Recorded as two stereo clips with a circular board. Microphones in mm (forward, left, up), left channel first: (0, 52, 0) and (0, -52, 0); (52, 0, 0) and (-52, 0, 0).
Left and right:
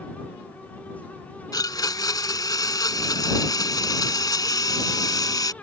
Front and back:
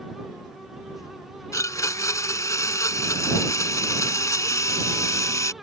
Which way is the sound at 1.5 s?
50° left.